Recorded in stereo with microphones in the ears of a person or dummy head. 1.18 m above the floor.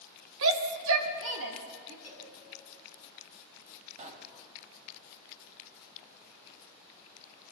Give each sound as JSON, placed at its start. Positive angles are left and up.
{"t": 0.4, "sound": "a shout", "side_deg": -85, "distance_m": 1.3}
{"t": 2.0, "sound": "a cowbell", "side_deg": -20, "distance_m": 3.0}
{"t": 4.0, "sound": "a pop", "side_deg": -45, "distance_m": 1.8}